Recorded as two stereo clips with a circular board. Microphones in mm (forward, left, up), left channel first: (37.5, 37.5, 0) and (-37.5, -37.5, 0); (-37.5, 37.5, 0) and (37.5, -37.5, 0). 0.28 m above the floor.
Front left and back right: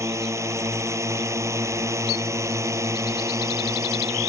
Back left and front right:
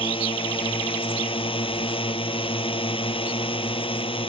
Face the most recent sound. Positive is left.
turn(degrees=165)